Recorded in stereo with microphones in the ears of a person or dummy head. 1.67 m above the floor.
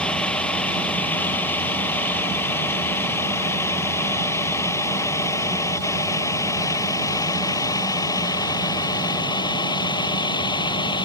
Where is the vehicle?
5° left (ahead or behind); by 11.0 s 25° left (ahead or behind).